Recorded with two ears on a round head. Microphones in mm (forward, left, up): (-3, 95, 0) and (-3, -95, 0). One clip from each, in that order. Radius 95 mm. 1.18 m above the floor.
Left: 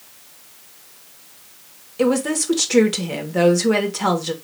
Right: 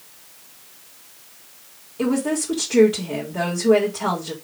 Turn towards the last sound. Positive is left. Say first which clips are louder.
# left 4 dB
turn(degrees=75)  # may be behind; listen again after turning